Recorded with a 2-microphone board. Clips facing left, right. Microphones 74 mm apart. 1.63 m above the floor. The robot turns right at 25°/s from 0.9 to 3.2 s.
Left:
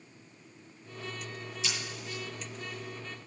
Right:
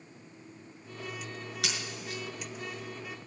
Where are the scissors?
70° right (ahead or behind), 6.5 m; by 2.2 s 80° right, 6.5 m.